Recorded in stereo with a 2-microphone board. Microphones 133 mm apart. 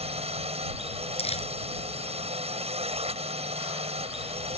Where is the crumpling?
50° left (ahead or behind).